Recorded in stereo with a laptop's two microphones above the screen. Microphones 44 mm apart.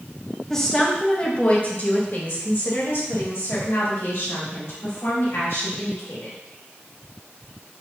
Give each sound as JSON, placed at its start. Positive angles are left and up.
{"t": 0.5, "sound": "a woman speaking", "side_deg": 10, "distance_m": 1.3}